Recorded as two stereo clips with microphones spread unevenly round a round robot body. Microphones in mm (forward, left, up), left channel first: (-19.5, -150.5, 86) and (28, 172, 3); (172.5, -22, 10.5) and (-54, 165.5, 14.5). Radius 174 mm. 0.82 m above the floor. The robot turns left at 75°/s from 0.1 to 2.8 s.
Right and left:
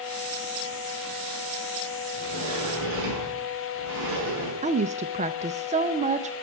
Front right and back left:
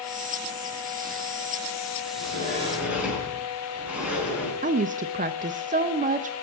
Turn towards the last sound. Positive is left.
turn(degrees=95)